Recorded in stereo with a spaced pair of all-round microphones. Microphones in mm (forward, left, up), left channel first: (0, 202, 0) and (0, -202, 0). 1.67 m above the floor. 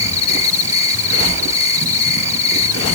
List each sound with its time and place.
0.0 s an insect: 65° left (ahead or behind)